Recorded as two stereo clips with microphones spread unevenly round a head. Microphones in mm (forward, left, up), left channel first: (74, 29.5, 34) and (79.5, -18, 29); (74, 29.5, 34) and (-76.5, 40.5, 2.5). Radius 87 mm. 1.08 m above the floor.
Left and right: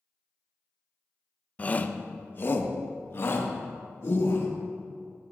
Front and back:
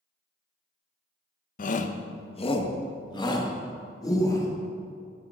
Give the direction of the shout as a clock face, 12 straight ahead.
11 o'clock.